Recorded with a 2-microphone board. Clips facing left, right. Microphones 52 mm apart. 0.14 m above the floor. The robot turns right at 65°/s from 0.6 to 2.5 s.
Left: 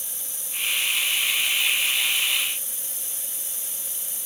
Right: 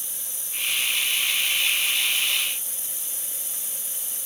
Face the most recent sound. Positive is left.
No sound to turn to.